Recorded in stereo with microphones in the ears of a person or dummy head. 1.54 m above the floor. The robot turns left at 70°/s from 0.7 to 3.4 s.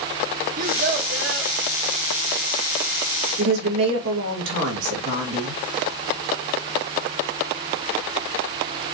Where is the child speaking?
55° right, 2 m; by 1.5 s 110° right, 2 m.